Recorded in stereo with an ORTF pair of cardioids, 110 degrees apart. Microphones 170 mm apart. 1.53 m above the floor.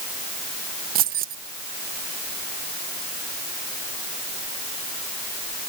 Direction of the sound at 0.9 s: 65° right.